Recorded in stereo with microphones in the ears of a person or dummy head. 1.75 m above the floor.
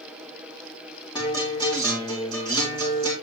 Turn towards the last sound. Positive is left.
turn(degrees=25)  # may be behind; listen again after turning